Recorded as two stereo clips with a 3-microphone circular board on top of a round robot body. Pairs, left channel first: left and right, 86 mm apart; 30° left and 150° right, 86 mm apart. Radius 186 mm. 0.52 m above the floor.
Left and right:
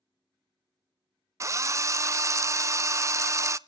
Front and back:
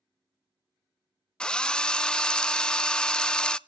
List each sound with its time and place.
1.4 s a drill: 50° right, 0.6 m